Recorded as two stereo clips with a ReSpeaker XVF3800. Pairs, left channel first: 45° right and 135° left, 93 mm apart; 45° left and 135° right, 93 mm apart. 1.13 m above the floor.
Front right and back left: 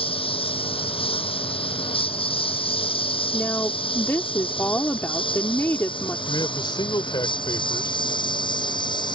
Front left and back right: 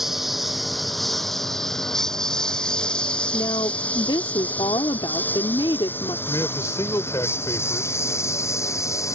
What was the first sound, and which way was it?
A lawn mower, 45° right.